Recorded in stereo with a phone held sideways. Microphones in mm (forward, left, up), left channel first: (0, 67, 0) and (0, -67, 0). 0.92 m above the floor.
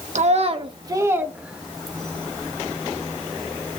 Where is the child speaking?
60° right (ahead or behind), 1.1 m; by 2.3 s 10° left (ahead or behind), 1.9 m.